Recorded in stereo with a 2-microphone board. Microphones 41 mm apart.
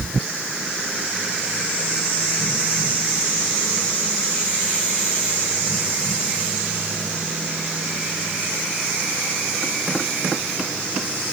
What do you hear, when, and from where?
Only background noise.